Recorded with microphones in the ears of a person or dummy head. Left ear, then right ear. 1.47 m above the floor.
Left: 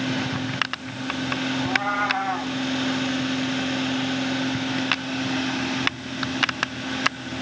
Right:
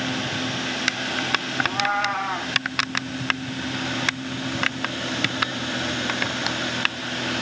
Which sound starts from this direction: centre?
A cat meowing, at 1.6 s.